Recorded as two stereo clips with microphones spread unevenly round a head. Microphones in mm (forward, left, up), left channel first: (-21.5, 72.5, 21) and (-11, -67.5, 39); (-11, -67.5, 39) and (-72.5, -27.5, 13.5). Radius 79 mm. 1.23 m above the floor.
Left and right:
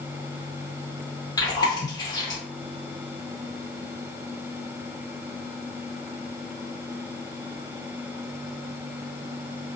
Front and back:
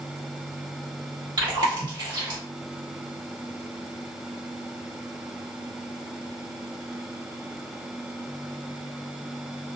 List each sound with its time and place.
1.4 s chewing: 155° left, 1.0 m